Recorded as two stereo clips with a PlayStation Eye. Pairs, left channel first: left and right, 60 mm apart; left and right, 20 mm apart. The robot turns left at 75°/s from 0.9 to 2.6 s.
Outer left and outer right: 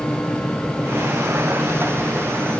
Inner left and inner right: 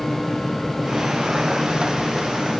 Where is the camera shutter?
No camera shutter in this recording.